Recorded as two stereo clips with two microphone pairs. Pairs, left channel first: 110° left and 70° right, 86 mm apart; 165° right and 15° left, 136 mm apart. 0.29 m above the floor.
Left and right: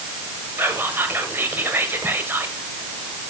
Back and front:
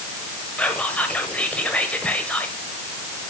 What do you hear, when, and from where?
0.6 s whispering: 95° right, 1.2 m